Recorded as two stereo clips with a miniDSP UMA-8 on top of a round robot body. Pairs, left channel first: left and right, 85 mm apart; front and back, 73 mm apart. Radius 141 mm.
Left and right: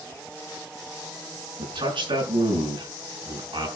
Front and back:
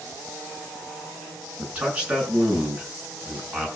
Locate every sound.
1.6 s a man speaking: 105° right, 8 m